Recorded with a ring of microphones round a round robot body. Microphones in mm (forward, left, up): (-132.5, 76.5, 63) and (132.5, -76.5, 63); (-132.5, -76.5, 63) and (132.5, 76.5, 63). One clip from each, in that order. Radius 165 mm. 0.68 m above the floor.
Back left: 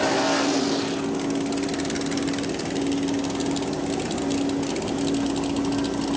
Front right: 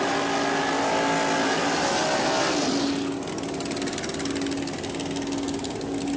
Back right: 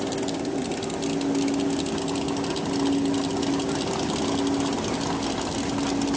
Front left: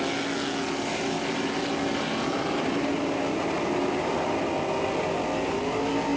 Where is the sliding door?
I don't hear a sliding door.